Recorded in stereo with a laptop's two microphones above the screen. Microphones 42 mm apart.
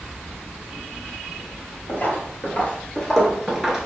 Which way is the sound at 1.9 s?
45° left (ahead or behind).